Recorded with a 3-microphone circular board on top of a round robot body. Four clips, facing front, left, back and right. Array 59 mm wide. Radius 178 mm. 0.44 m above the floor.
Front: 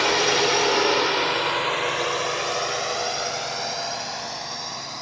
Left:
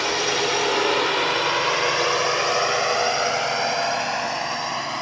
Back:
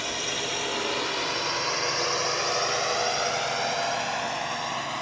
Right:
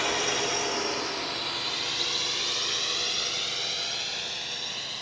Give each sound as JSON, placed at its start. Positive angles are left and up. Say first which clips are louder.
{"t": 0.0, "sound": "a drone", "louder": "left 6 dB, front 11 dB", "azimuth_deg": 20}